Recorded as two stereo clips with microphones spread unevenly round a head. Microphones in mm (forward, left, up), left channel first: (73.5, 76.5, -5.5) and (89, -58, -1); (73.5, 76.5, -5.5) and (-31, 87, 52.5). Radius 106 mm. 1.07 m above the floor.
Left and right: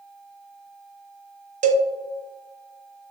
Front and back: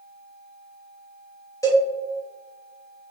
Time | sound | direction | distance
1.6 | a cowbell | 60° right | 0.7 m